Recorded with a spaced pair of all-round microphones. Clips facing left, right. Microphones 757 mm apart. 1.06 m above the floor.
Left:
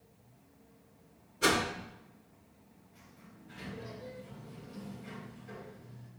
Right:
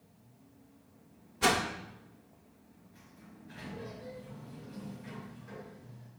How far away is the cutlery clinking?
No cutlery clinking in this recording.